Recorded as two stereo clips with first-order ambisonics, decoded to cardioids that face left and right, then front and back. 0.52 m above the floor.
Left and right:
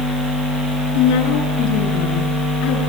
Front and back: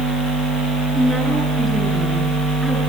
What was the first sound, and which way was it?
A woman speaking, 95° left.